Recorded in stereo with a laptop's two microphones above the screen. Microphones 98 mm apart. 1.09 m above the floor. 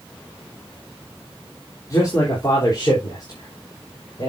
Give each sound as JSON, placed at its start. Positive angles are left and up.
{"t": 1.9, "sound": "a man speaking", "side_deg": 35, "distance_m": 3.0}